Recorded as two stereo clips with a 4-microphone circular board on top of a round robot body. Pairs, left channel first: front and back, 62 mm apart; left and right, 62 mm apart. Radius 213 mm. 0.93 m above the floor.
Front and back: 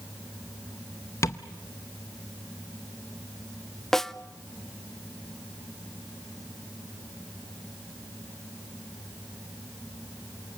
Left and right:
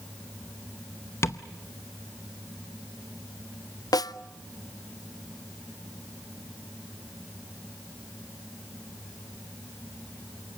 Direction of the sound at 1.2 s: 45° left.